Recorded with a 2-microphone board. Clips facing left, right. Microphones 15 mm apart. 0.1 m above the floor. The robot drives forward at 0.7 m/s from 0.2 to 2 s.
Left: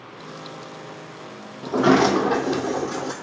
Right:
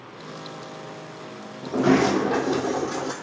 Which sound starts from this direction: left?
A sliding door, at 1.6 s.